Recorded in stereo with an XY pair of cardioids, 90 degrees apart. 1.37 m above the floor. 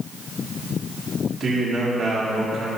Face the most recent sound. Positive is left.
turn(degrees=-60)